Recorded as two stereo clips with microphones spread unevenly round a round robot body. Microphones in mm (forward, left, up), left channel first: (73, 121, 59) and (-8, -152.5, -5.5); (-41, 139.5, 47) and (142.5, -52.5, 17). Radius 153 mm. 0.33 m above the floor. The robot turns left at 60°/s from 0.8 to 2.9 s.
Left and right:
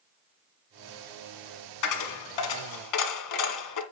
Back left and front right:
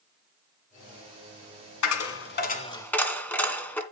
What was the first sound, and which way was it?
A dropped coin, 115° left.